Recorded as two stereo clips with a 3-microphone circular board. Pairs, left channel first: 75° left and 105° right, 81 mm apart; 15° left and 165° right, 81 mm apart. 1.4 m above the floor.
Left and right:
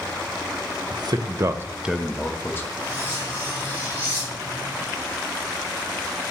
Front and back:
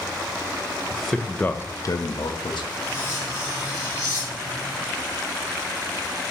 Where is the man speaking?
80° right, 0.7 m; by 2.7 s 15° left, 0.8 m.